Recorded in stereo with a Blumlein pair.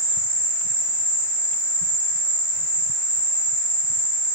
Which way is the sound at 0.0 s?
55° right.